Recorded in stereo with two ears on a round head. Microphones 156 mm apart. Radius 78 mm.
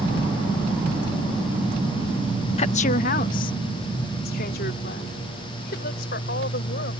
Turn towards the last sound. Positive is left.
turn(degrees=60)  # may be behind; listen again after turning